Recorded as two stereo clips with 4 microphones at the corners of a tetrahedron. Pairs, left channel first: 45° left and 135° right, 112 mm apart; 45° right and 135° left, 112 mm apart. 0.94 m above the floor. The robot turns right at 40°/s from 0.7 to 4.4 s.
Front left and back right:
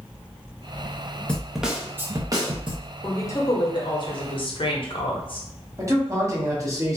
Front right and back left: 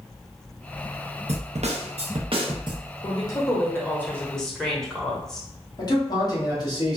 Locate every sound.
1.3 s a snare drum: 125° left, 0.5 m; by 2.9 s 170° right, 0.5 m
3.0 s a woman speaking: 20° right, 0.8 m; by 5.5 s 35° left, 0.8 m
5.8 s a man speaking: 80° right, 1.0 m